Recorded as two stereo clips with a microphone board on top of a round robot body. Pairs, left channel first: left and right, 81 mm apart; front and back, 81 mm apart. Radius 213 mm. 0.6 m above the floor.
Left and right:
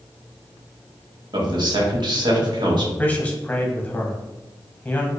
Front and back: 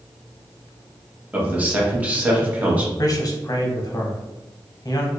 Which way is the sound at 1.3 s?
110° right.